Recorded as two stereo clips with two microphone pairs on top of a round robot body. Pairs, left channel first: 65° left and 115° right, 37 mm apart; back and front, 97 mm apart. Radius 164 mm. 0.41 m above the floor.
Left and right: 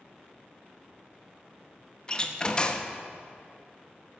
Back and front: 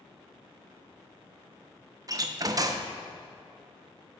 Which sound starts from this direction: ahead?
A door slam, at 2.1 s.